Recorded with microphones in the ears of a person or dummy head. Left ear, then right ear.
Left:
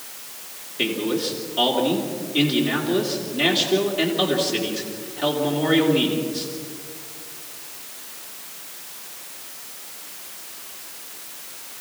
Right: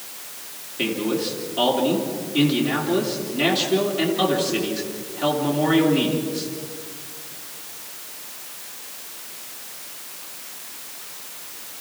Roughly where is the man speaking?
Centre.